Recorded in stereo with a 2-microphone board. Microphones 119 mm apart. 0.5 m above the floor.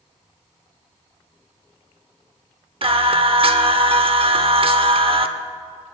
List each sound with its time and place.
2.8 s singing: 50° right (ahead or behind), 0.8 m